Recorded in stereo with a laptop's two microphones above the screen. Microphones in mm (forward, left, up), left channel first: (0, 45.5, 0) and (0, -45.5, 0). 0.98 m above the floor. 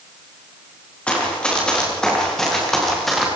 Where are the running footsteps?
10° left (ahead or behind), 7.5 m; by 3.3 s centre (ahead or behind), 6.5 m.